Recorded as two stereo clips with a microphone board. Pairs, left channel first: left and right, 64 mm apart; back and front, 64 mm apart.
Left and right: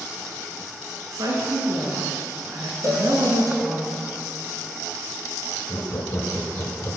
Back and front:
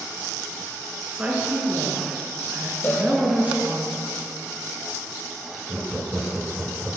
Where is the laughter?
65° left, 1.5 m.